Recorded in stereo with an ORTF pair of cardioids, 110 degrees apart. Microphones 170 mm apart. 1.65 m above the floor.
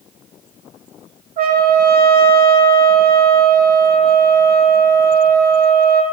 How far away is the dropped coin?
No dropped coin in this recording.